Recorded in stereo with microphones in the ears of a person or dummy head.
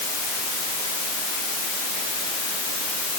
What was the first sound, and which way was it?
Only background noise.